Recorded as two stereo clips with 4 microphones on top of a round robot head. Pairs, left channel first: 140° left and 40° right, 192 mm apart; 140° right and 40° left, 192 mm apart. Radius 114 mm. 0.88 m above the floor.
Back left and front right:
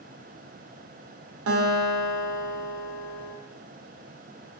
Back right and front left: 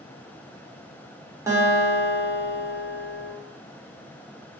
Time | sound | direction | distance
1.5 | a guitar | 35° right | 0.6 m